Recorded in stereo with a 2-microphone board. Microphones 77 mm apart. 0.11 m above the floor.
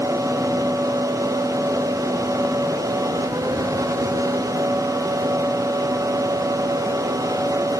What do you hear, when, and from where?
Only background noise.